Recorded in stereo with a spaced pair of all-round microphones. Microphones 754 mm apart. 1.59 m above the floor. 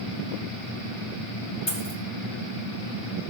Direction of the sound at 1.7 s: 60° left (ahead or behind).